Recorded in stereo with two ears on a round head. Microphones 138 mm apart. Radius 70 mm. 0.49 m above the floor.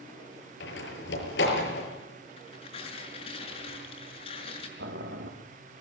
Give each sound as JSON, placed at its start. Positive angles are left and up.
{"t": 0.6, "sound": "a door slam", "side_deg": 80, "distance_m": 6.5}
{"t": 2.4, "sound": "tearing paper", "side_deg": 35, "distance_m": 5.5}
{"t": 4.8, "sound": "boiling", "side_deg": -80, "distance_m": 3.5}